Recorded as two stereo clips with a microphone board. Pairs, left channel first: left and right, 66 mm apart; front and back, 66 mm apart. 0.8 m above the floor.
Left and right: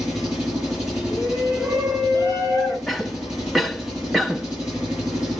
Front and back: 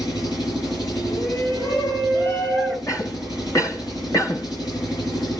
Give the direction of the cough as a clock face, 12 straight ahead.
12 o'clock.